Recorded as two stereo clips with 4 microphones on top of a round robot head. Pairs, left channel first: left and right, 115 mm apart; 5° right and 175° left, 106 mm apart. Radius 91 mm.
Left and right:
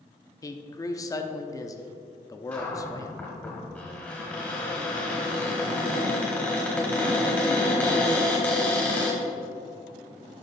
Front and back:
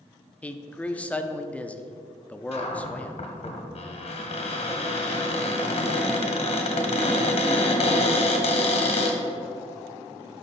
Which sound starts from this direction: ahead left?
A man speaking, at 0.4 s.